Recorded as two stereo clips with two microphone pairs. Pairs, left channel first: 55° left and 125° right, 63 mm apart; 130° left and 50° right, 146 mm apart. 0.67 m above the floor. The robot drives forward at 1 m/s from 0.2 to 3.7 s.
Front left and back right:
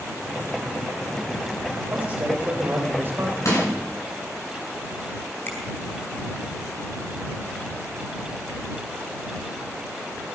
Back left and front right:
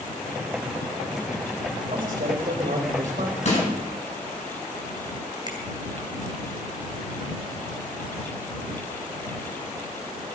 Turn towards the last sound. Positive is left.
turn(degrees=10)